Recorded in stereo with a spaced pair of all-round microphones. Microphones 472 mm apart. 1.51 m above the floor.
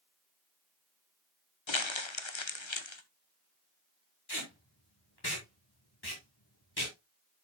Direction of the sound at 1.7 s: 70° left (ahead or behind).